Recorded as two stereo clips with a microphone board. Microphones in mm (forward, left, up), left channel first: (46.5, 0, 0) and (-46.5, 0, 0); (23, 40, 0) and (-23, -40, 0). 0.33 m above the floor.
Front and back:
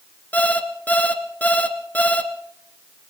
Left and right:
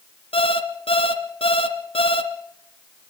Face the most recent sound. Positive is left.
turn(degrees=70)